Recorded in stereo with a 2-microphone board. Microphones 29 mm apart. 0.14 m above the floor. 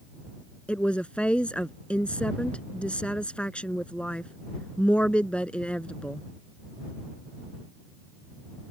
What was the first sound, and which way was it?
A woman speaking, 40° left (ahead or behind).